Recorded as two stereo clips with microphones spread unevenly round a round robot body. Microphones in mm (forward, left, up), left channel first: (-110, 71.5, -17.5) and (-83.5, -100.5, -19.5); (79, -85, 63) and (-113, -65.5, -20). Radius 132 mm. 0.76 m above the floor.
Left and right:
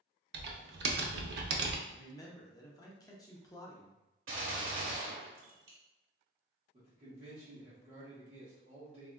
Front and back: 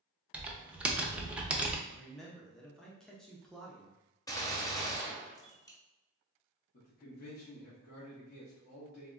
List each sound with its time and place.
0.3 s typing on a keyboard: 85° right, 0.5 m
1.9 s a man speaking: 140° left, 0.5 m
4.3 s a gunshot: 80° right, 1.0 m
6.7 s a man speaking: 50° right, 1.0 m